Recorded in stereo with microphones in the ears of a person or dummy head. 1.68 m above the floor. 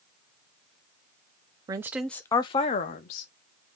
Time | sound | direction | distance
1.7 | a woman speaking | 25° right (ahead or behind) | 0.5 m